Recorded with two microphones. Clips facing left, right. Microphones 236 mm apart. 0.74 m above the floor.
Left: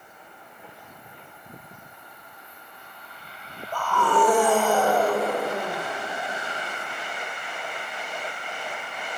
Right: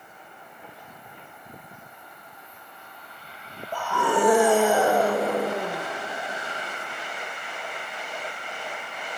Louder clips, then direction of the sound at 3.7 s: Left 1 dB; 15° right (ahead or behind).